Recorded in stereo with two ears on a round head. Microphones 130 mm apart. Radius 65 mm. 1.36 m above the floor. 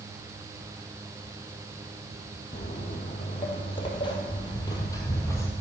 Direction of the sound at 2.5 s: 45° left (ahead or behind).